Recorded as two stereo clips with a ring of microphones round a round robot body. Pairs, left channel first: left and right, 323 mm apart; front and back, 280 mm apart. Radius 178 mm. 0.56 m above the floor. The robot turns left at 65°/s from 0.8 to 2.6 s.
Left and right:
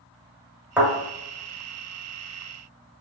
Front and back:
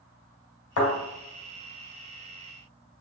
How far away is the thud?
About 1.6 m.